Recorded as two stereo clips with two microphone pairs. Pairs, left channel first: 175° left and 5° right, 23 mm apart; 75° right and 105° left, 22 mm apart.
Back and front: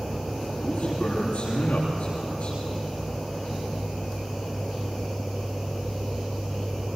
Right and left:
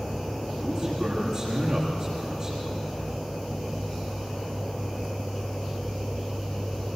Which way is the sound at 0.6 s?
160° left.